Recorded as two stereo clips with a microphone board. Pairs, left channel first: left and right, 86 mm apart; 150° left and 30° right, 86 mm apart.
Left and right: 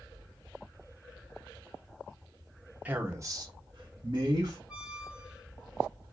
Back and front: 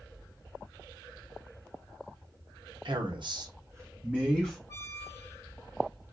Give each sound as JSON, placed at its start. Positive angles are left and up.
{"t": 2.9, "sound": "a man speaking", "azimuth_deg": -20, "distance_m": 0.8}
{"t": 4.7, "sound": "a squeak", "azimuth_deg": -165, "distance_m": 1.0}